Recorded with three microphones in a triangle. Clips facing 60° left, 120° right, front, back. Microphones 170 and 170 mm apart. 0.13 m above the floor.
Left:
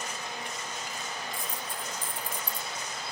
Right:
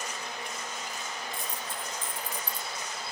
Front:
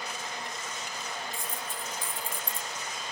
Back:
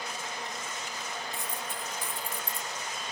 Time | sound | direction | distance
1.3 | a dropped coin | straight behind | 0.8 m